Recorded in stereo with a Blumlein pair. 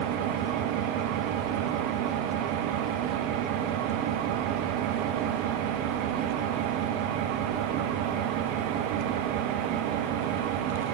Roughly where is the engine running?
Ahead right.